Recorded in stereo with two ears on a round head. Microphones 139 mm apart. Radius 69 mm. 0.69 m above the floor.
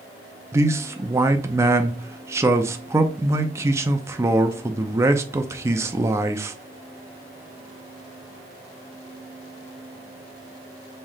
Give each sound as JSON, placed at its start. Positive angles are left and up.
{"t": 0.5, "sound": "a man speaking", "side_deg": -20, "distance_m": 0.5}